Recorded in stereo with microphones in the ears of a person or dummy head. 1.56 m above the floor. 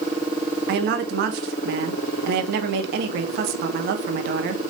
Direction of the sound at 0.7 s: 55° right (ahead or behind).